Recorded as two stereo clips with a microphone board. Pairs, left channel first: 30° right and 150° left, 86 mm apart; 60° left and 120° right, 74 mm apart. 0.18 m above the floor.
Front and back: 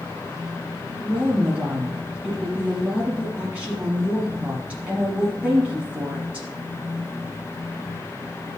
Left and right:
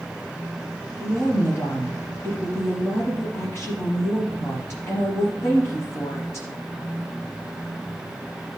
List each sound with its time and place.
1.0 s a woman speaking: 85° left, 1.5 m